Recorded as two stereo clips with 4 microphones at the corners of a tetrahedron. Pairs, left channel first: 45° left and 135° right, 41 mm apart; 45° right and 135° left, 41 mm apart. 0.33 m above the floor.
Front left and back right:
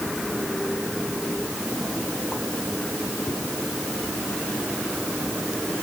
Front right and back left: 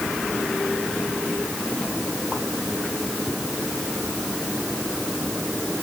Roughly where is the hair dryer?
I don't hear a hair dryer.